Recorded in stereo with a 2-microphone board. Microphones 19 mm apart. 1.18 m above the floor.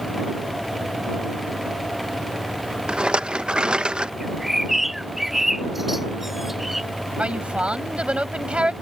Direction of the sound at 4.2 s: 15° right (ahead or behind).